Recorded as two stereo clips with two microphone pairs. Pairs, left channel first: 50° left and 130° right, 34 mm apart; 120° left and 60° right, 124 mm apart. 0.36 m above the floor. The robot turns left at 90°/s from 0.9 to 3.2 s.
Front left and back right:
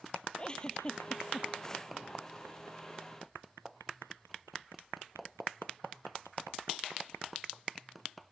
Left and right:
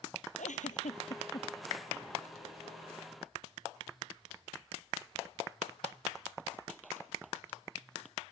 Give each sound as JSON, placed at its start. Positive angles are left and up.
{"t": 0.4, "sound": "a giggle", "azimuth_deg": 115}